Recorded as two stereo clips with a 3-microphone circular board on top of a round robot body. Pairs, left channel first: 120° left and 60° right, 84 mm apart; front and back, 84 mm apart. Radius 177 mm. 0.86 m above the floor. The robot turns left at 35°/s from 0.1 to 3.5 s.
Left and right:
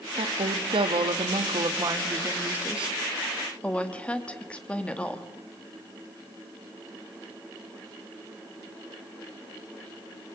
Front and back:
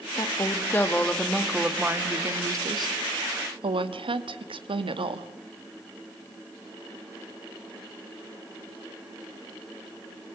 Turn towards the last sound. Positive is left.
turn(degrees=-160)